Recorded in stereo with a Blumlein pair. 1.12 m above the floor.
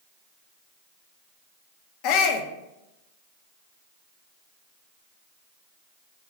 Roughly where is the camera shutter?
No camera shutter in this recording.